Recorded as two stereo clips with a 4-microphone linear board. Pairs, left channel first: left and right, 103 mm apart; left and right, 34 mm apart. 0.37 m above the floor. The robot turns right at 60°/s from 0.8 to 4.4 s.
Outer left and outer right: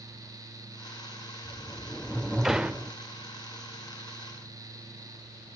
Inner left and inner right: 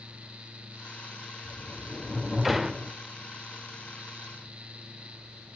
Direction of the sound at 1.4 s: 15° left (ahead or behind).